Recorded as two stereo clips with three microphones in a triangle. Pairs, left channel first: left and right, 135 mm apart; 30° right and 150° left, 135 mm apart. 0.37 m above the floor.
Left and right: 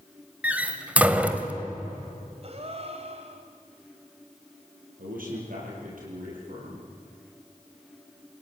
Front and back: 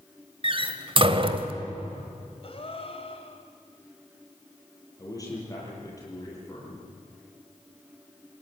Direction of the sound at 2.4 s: 65° right.